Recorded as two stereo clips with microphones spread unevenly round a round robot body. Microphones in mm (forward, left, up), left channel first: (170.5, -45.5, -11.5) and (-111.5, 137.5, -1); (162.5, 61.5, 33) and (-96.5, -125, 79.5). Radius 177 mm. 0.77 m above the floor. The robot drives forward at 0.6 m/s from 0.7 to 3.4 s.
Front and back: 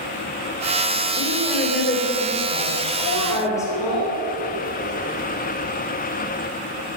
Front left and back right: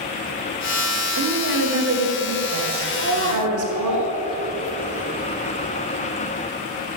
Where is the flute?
No flute in this recording.